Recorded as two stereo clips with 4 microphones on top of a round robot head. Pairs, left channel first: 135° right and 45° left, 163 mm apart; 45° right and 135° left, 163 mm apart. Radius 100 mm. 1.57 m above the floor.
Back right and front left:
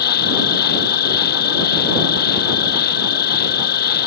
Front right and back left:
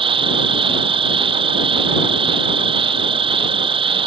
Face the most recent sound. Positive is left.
turn(degrees=-165)